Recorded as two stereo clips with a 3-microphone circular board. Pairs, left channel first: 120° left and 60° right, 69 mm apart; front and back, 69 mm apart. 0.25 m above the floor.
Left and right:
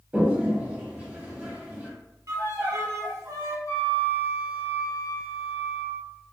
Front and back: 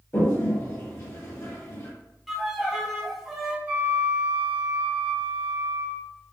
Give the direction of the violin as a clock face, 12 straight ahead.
3 o'clock.